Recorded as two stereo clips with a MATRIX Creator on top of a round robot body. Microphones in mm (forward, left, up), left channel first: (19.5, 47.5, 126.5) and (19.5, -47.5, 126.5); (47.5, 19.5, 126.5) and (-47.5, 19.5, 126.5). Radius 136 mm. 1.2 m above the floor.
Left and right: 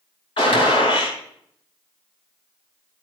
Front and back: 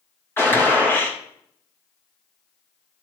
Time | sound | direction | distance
0.4 | a gunshot | 65° left | 3.5 m